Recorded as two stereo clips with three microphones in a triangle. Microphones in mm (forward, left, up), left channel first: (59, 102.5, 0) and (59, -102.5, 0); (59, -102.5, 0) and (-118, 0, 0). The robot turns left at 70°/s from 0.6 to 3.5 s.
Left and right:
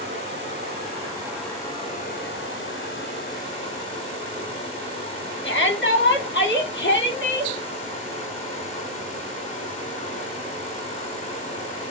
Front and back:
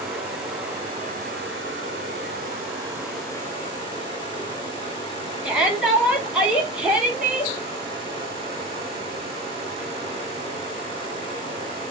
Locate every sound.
0.0 s running water: 125° right, 3.5 m; by 11.9 s 35° left, 3.5 m
5.4 s a shout: 65° left, 3 m